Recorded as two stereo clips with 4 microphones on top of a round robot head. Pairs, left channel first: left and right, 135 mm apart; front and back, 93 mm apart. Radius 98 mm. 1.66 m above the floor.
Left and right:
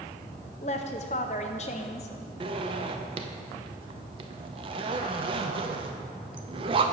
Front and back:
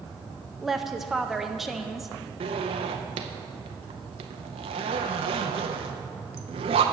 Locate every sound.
0.6 s a woman speaking: 95° left, 0.6 m
2.4 s a zipper: 150° right, 0.6 m